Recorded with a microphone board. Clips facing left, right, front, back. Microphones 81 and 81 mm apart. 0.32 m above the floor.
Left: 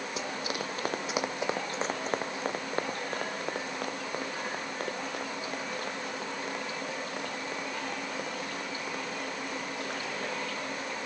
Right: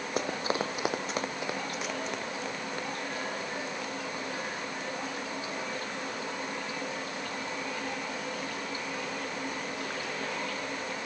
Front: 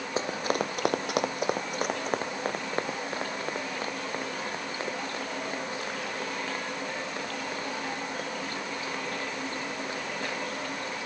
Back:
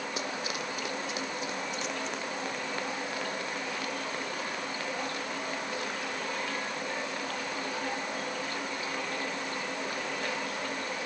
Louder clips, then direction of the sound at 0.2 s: Right 6 dB, front 10 dB; 55° right.